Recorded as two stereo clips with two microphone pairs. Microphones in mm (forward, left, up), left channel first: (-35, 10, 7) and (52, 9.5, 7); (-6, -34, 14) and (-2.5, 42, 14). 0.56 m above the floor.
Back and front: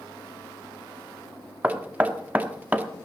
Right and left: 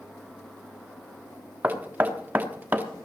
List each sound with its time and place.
1.6 s knocking: 50° left, 1.1 m